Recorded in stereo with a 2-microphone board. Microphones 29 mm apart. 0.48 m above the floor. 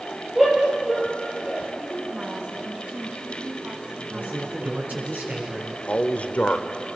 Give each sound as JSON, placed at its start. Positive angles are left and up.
{"t": 0.3, "sound": "a shout", "side_deg": -5, "distance_m": 9.5}
{"t": 1.8, "sound": "a woman speaking", "side_deg": -35, "distance_m": 5.0}
{"t": 4.1, "sound": "a man speaking", "side_deg": -75, "distance_m": 5.5}
{"t": 5.9, "sound": "a man speaking", "side_deg": 50, "distance_m": 1.5}